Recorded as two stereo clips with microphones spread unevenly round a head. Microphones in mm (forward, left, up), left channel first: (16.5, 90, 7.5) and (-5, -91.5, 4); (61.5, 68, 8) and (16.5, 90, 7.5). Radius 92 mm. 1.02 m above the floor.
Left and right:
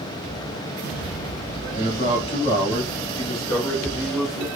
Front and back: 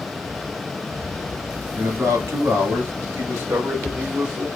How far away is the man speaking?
About 2 m.